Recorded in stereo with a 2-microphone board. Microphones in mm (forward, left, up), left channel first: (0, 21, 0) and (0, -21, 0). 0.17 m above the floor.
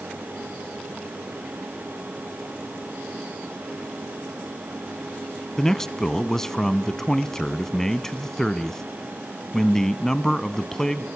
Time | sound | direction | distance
5.6 | a man speaking | 15° left (ahead or behind) | 1.1 m